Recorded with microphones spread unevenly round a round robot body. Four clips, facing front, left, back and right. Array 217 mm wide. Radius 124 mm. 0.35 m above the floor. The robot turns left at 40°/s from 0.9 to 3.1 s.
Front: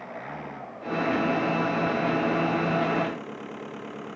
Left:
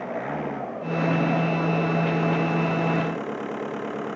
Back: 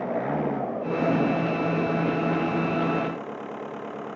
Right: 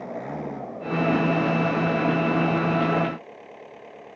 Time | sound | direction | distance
0.0 | an engine running | 175° left | ?